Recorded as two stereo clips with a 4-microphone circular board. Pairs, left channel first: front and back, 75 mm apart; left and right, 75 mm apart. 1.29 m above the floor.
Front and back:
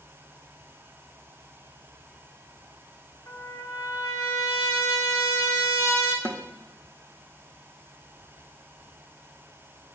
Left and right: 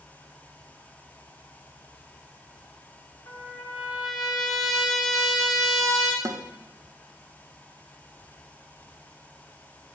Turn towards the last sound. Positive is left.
turn(degrees=-120)